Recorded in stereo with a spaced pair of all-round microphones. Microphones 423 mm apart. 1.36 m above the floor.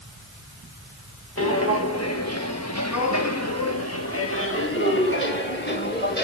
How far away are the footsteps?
About 1.8 m.